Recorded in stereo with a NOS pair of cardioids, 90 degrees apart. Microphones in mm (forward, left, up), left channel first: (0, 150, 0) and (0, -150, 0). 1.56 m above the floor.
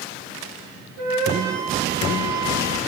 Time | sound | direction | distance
1.0 | a flute | 65° right | 3.5 m